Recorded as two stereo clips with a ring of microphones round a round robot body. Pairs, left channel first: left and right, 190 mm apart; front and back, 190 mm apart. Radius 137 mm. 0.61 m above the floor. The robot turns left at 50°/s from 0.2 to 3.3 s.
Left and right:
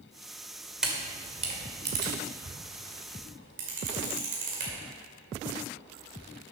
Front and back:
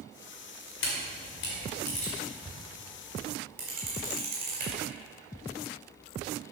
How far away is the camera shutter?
About 2 m.